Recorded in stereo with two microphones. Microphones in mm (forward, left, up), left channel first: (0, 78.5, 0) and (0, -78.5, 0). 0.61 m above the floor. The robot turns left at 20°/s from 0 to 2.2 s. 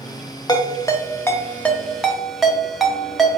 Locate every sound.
0.5 s a ringtone: 25° left (ahead or behind), 0.6 m; by 3.4 s centre (ahead or behind), 0.6 m